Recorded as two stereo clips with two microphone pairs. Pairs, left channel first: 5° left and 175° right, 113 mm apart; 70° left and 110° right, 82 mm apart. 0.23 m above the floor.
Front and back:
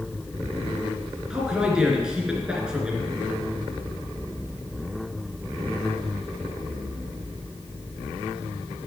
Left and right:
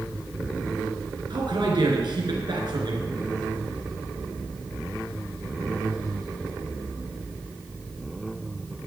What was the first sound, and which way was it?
A man speaking, 95° right.